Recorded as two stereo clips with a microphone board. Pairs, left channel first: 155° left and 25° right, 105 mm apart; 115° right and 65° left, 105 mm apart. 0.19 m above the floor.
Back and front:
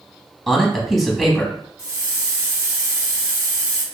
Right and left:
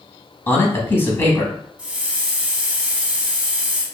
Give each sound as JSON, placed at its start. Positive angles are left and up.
{"t": 0.5, "sound": "a man speaking", "azimuth_deg": -105, "distance_m": 1.0}
{"t": 1.8, "sound": "a hiss", "azimuth_deg": 0, "distance_m": 1.0}